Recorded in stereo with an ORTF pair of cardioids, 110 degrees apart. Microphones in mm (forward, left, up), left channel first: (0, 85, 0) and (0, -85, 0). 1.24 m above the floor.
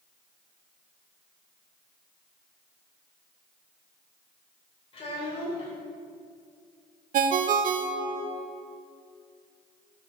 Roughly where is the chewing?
No chewing in this recording.